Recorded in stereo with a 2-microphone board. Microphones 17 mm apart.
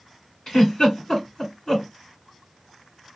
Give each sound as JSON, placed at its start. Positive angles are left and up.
{"t": 0.5, "sound": "a giggle", "side_deg": 40, "distance_m": 2.0}